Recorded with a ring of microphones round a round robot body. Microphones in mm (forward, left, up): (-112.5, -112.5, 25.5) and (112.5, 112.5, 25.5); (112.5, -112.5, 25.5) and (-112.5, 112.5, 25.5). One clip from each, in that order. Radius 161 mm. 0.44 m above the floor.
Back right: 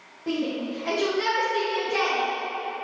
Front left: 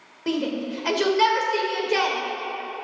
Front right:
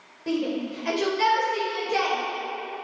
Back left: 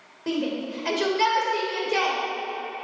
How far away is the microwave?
No microwave in this recording.